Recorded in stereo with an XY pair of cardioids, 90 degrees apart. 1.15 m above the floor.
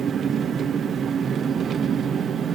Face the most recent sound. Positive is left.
turn(degrees=-65)